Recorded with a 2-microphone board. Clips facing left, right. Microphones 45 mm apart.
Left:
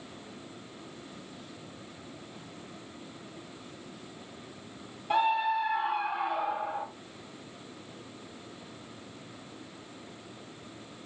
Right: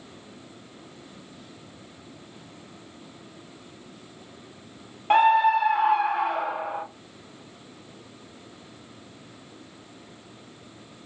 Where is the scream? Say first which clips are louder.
Right 9 dB; 55° right (ahead or behind), 0.8 m; by 6.8 s 75° right (ahead or behind), 2.0 m.